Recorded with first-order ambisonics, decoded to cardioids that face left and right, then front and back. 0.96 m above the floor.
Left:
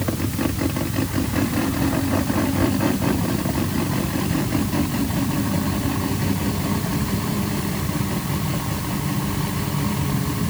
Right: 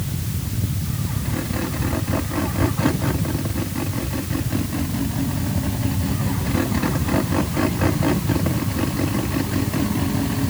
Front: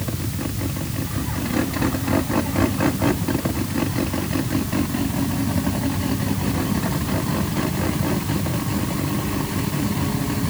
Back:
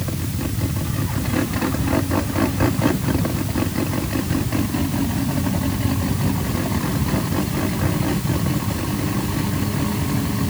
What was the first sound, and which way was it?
Only background noise.